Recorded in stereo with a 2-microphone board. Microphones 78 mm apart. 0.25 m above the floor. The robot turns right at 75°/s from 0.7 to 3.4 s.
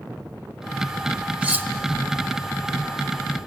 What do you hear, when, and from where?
1.4 s cutlery clinking: 20° right (ahead or behind), 1.0 m; by 1.7 s 35° right (ahead or behind), 1.0 m